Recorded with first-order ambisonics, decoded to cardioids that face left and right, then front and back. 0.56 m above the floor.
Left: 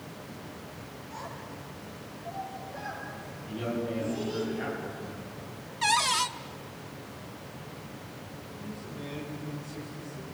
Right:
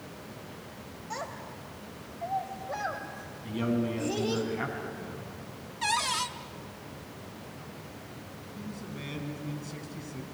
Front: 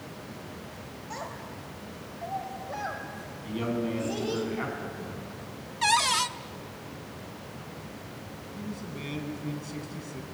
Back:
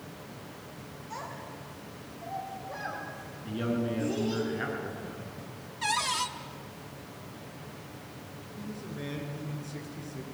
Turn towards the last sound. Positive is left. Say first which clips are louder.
# even, front 1 dB
turn(degrees=-35)